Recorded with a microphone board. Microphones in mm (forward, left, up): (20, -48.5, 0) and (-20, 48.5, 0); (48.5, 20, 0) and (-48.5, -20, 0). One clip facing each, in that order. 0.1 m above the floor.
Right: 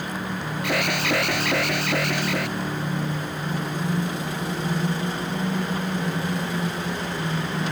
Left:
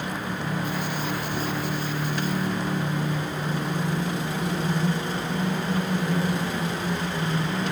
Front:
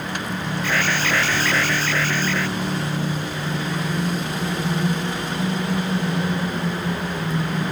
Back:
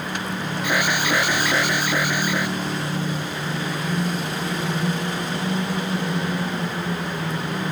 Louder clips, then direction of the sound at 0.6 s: Right 4 dB, back 1 dB; 80° right.